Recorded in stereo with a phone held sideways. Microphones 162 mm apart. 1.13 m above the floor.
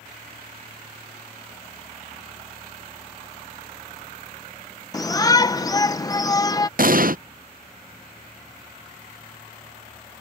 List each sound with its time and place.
4.9 s a shout: 20° left (ahead or behind)
6.8 s an explosion: 60° right (ahead or behind)